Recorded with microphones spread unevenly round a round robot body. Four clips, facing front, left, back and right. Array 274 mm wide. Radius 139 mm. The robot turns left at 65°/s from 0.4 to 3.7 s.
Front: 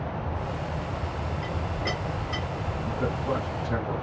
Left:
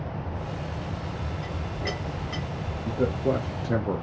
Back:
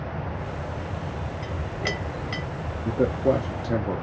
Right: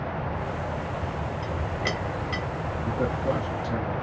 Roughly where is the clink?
Behind right.